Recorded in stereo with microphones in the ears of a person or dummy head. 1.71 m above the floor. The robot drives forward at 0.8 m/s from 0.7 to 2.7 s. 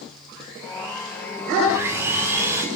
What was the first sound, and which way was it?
Sawing, 15° right (ahead or behind).